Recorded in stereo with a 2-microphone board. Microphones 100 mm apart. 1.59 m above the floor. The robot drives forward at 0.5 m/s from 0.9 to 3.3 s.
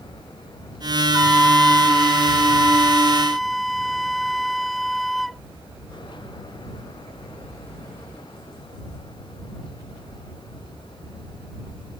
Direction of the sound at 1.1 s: 5° left (ahead or behind).